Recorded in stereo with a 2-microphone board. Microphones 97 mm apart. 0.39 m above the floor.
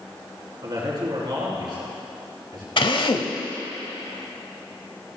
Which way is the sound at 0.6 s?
50° right (ahead or behind).